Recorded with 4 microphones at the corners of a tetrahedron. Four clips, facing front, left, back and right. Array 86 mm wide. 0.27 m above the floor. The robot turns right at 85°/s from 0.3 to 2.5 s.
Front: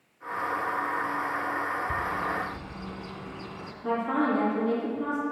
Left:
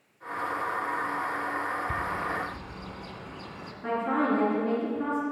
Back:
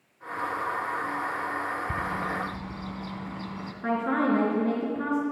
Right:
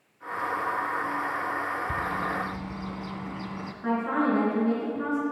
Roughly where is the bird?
Behind.